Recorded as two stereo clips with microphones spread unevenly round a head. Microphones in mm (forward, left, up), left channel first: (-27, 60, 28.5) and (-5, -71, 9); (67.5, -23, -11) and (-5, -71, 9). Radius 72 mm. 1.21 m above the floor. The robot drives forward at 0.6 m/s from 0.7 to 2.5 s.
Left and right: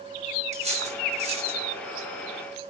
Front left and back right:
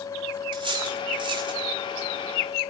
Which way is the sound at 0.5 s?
120° right.